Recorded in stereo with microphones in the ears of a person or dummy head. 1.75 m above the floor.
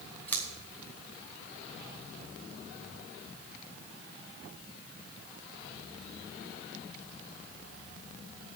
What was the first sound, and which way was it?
Scissors, 10° left (ahead or behind).